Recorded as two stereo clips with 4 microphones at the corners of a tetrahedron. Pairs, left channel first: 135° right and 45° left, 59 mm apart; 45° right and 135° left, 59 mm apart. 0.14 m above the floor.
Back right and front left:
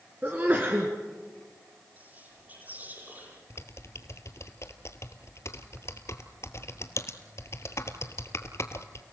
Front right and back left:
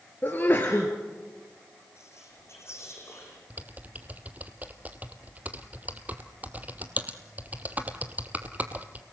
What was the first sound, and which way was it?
A sneeze, straight ahead.